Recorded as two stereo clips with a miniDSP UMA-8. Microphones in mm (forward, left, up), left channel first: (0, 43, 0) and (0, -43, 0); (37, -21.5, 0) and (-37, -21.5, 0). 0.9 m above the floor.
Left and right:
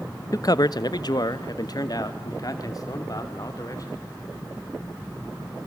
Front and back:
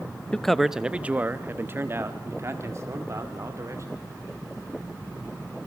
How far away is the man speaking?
About 0.7 m.